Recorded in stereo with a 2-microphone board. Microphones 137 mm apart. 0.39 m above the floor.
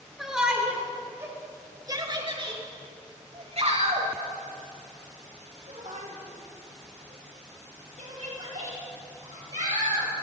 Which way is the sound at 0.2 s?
5° right (ahead or behind).